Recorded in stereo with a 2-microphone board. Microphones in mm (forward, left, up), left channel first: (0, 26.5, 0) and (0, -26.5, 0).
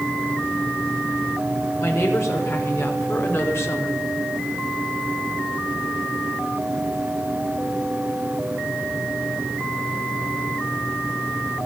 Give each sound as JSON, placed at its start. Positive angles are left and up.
{"t": 1.8, "sound": "a woman speaking", "side_deg": 65, "distance_m": 6.5}